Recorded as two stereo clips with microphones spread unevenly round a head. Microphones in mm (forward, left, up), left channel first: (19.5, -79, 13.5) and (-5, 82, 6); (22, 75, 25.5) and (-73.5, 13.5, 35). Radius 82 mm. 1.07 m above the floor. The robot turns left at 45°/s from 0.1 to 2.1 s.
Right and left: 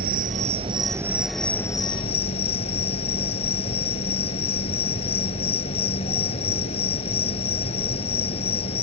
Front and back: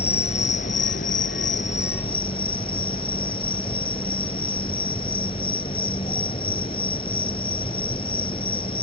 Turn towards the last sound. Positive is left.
turn(degrees=-25)